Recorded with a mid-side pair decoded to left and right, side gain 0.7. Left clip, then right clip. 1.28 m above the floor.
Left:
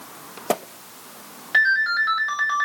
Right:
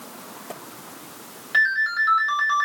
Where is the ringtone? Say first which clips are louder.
Left 2 dB; 15° left, 3 m.